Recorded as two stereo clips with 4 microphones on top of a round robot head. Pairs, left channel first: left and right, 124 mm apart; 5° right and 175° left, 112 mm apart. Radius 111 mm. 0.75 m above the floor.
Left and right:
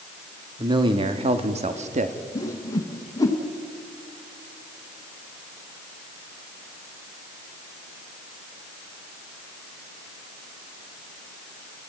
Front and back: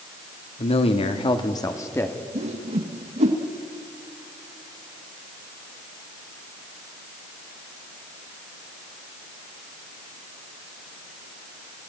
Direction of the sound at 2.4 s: 155° left.